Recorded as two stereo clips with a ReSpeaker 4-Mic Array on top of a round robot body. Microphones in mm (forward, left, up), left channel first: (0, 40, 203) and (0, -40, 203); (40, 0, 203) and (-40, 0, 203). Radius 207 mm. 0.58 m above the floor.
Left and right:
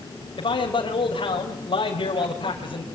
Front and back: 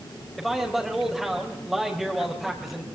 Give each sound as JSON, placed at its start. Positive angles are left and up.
{"t": 0.4, "sound": "a man speaking", "azimuth_deg": 95, "distance_m": 4.0}